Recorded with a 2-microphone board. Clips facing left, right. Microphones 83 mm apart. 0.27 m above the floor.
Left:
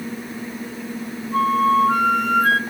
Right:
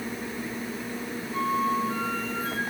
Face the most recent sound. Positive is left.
turn(degrees=70)  # may be behind; listen again after turning